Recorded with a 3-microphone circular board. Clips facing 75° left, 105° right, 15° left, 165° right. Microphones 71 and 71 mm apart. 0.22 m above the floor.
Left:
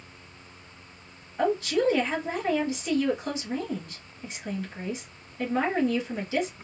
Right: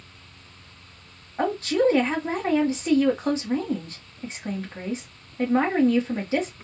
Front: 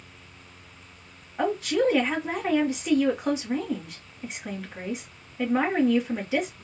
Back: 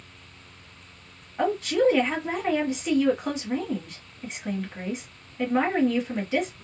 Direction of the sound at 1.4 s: 75° right.